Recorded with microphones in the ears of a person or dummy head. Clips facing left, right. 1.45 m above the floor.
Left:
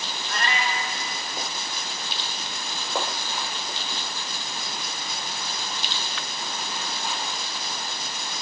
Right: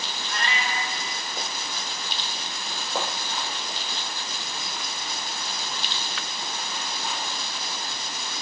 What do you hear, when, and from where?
0.3 s a cat meowing: 45° left (ahead or behind), 1.7 m